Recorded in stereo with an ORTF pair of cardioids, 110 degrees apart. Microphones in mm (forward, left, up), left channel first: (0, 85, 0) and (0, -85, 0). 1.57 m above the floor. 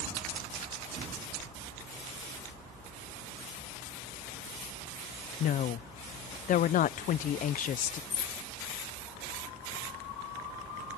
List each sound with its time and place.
5.4 s a woman speaking: 55° left
8.1 s cutlery clinking: 40° left